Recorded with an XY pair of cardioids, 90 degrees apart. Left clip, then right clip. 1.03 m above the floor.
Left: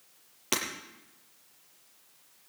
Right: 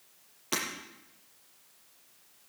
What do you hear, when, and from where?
0.5 s breaking glass: 55° left, 7 m